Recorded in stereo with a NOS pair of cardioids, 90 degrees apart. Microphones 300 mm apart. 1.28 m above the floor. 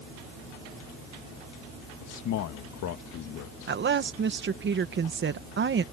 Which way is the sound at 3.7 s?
40° right.